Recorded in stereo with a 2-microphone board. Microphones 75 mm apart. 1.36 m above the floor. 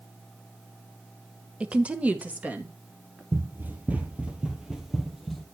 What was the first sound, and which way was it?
A woman speaking, 15° right (ahead or behind).